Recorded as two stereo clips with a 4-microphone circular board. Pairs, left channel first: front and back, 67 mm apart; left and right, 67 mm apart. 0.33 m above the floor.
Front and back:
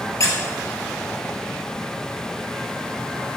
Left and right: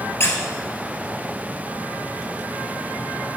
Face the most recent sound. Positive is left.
turn(degrees=40)